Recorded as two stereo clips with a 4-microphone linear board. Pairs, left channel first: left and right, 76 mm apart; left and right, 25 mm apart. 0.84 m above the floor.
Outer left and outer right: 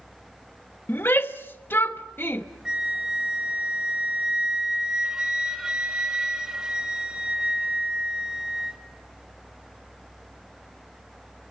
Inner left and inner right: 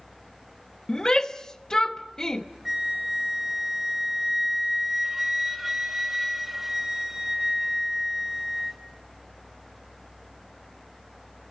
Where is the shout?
30° left (ahead or behind), 1.0 m.